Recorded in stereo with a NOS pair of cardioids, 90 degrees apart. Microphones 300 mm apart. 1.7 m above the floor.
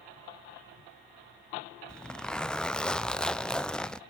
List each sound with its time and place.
1.9 s a zipper: 5° left, 0.8 m